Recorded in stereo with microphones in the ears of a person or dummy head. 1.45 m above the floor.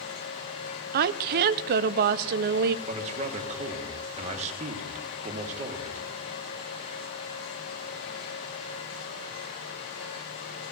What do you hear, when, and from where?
0.9 s a woman speaking: 55° right (ahead or behind), 0.6 m
2.9 s a man speaking: 40° right (ahead or behind), 2 m